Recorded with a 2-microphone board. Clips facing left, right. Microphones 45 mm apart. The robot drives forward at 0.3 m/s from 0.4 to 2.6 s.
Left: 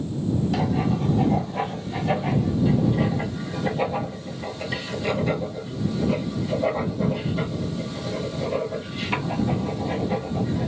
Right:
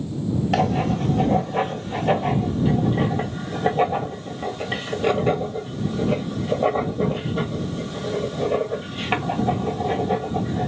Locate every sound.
0.5 s writing: 65° right (ahead or behind), 1.1 m; by 10.7 s 45° right (ahead or behind), 1.5 m